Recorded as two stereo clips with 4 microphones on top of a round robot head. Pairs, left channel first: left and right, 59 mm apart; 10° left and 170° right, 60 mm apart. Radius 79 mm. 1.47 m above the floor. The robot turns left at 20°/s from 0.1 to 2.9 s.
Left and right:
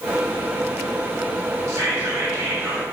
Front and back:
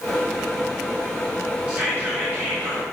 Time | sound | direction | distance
1.7 | whispering | 105° right | 2.5 m